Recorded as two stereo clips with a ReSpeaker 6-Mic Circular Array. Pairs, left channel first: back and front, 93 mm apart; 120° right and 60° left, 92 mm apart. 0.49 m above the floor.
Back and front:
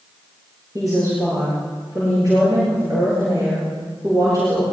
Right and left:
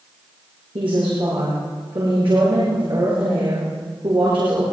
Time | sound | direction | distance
0.8 | a woman speaking | 50° left | 8 m